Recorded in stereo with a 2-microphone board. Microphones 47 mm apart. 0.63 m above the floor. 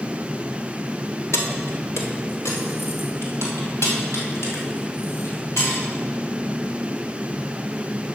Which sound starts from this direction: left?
Keys jangling, at 1.3 s.